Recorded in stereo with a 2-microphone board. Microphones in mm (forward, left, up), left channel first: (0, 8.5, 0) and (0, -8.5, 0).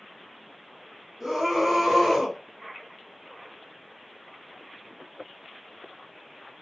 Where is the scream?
30° right (ahead or behind), 1.3 m.